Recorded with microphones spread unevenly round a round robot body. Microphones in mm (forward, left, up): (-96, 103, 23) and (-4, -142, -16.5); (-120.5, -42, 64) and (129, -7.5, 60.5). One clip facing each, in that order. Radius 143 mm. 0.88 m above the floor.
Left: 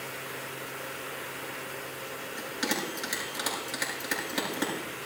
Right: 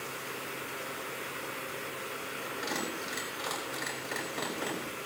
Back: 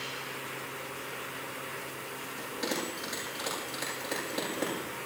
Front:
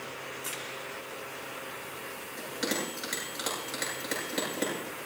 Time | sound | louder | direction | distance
2.4 | a bell | left 5 dB, front 2 dB | 75° left | 9.5 m